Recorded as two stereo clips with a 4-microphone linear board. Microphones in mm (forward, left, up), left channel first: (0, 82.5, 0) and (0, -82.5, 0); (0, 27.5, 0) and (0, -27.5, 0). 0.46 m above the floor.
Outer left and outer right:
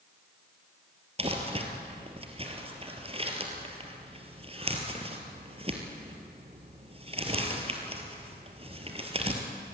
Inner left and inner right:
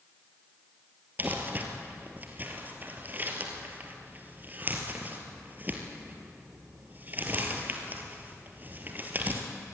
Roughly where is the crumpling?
Right.